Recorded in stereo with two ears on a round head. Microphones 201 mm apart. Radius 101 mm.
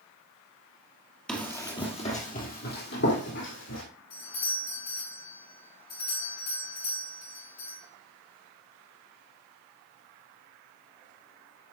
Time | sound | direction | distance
1.3 | running footsteps | 5° left (ahead or behind) | 1.9 m
4.1 | a doorbell | 40° left (ahead or behind) | 5.5 m